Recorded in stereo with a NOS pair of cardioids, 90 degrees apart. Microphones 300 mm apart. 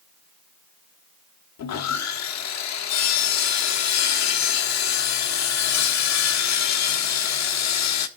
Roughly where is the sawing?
Ahead left.